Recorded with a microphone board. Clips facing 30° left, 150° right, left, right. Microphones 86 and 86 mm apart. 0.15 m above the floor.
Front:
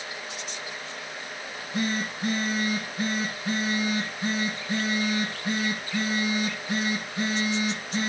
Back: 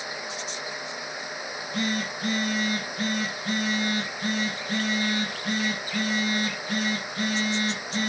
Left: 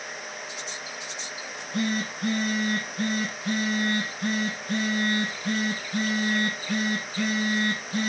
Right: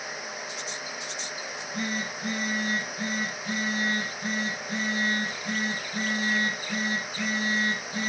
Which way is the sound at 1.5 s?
105° left.